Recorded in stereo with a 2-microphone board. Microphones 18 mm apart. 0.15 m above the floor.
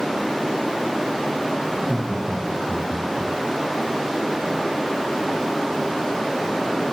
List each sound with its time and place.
1.7 s laughter: 55° right (ahead or behind), 7.5 m; by 3.3 s 50° right (ahead or behind), 7.5 m